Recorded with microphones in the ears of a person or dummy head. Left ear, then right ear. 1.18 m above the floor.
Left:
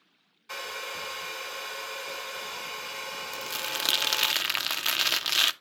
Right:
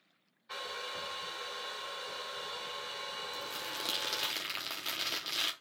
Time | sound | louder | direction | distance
0.5 | a hair dryer | left 4 dB | 80° left | 1.9 m
3.3 | crumpling | left 7 dB | 45° left (ahead or behind) | 0.8 m